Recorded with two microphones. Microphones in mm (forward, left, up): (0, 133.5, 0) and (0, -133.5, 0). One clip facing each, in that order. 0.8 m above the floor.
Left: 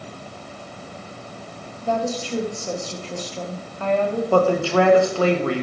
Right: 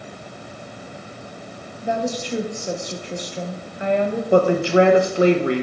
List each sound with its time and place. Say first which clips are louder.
1.8 s a woman speaking: even; 15° right (ahead or behind), 0.9 m
4.3 s a woman speaking: right 3 dB; 20° right (ahead or behind), 0.8 m